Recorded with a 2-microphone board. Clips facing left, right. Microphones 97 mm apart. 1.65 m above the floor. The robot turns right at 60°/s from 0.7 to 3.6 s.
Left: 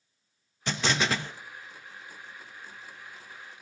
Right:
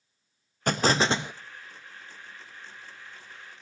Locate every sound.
0.7 s an explosion: 55° right, 0.6 m; by 1.3 s 15° right, 0.6 m